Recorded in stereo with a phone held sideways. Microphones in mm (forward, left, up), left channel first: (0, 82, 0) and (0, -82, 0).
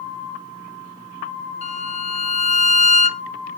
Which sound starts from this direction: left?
A violin, at 1.6 s.